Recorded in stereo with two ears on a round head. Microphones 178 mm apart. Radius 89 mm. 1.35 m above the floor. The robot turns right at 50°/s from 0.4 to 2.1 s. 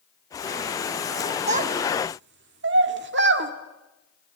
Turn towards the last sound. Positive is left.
turn(degrees=-60)  # may be behind; listen again after turning